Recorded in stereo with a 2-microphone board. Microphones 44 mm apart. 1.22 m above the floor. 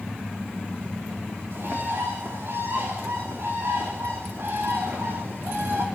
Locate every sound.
1.5 s a bird: 65° right (ahead or behind), 3.5 m